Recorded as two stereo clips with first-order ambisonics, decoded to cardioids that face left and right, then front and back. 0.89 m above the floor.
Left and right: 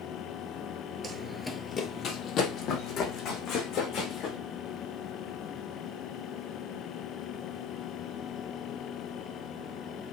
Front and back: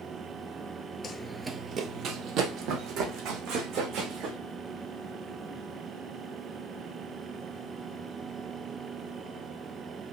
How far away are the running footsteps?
About 0.9 m.